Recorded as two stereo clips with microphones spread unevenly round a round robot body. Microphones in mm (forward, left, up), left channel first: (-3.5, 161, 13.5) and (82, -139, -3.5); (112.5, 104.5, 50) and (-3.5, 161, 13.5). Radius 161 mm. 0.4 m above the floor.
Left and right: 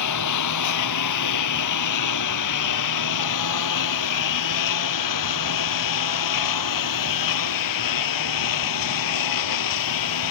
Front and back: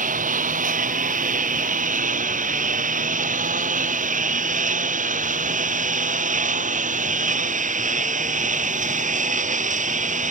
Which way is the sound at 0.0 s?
145° left.